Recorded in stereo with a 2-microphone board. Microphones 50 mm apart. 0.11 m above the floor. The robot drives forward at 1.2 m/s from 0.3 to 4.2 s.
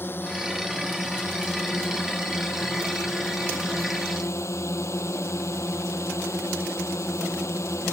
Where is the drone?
45° left (ahead or behind); by 7.9 s 65° left (ahead or behind).